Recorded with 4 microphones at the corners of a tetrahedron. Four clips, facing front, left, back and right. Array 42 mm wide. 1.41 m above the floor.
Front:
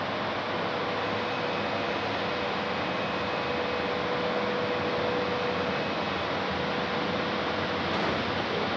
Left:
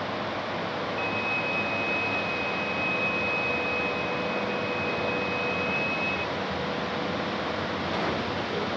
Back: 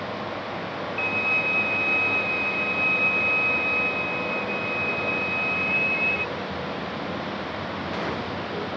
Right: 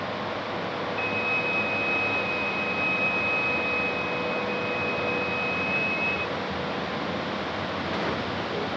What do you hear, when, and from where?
1.0 s a violin: 170° right